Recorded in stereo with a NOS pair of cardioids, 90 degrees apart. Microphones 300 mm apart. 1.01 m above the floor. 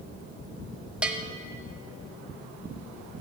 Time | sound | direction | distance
1.0 | a bell | 5° right | 0.8 m